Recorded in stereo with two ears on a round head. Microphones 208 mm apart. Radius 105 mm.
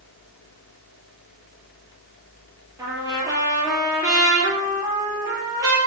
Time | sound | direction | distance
2.8 | a trumpet | 15° right (ahead or behind) | 8 m